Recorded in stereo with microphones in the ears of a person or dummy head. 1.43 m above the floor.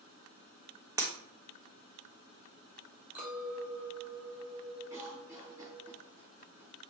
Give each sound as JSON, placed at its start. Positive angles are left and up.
{"t": 1.0, "sound": "breaking glass", "side_deg": -15, "distance_m": 0.8}
{"t": 3.1, "sound": "a clink", "side_deg": -10, "distance_m": 1.2}
{"t": 4.9, "sound": "a cough", "side_deg": -15, "distance_m": 1.5}